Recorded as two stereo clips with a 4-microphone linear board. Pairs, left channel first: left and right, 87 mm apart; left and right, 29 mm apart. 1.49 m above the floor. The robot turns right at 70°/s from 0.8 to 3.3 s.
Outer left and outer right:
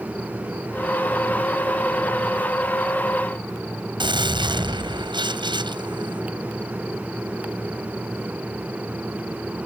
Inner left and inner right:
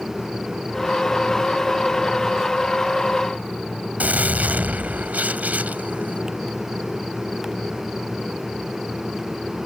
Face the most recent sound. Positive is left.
turn(degrees=-65)  # may be behind; listen again after turning